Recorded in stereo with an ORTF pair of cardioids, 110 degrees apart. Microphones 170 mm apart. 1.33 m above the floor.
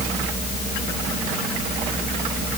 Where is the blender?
I don't hear a blender.